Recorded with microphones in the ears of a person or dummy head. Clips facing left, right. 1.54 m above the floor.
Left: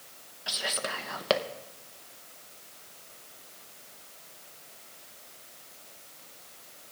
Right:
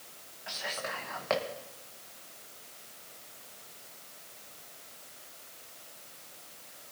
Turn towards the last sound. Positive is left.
turn(degrees=45)  # may be behind; listen again after turning